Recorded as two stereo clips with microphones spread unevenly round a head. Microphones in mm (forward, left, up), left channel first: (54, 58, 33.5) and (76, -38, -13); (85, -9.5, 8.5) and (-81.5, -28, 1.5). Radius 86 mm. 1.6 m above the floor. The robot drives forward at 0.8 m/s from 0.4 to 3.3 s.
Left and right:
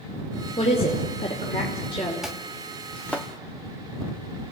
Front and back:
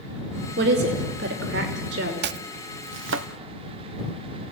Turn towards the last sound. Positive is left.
turn(degrees=-170)